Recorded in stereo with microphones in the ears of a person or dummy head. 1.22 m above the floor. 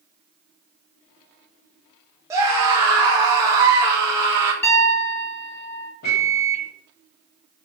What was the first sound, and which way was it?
A scream, 20° right (ahead or behind).